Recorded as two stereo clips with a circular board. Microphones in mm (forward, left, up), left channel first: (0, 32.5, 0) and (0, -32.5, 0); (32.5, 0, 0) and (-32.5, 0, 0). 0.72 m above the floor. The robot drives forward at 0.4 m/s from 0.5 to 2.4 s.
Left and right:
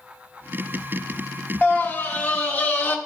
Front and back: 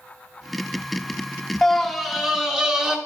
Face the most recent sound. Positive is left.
turn(degrees=110)